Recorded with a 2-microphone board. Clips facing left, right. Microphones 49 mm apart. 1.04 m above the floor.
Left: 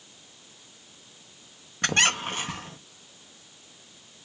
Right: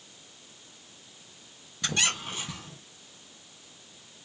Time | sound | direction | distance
1.8 | a squeak | 50° left (ahead or behind) | 0.8 m